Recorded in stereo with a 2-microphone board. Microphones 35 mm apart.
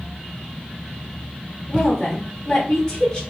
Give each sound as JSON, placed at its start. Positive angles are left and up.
{"t": 1.7, "sound": "a woman speaking", "side_deg": 15, "distance_m": 0.9}